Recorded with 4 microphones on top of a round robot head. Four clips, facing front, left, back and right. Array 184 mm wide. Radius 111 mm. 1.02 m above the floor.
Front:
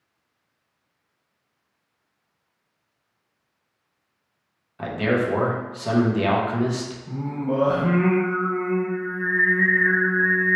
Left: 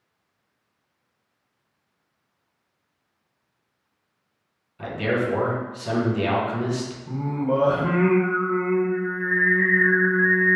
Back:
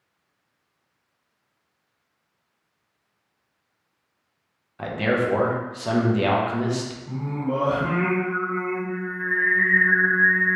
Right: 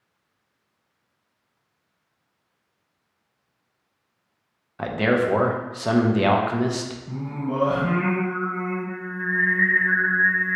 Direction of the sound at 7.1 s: 100° left.